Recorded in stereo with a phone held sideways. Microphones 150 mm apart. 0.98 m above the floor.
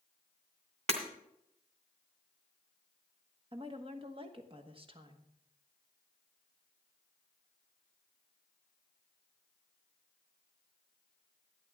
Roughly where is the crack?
I don't hear a crack.